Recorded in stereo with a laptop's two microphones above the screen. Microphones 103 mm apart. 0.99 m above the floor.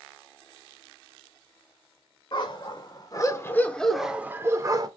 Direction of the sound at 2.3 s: 50° left (ahead or behind).